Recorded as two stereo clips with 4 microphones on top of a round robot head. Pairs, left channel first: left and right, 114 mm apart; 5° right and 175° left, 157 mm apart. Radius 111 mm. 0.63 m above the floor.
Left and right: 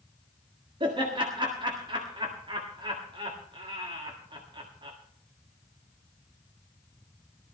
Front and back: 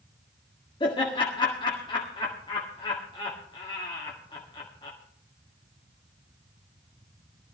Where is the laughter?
55° right, 1.8 m.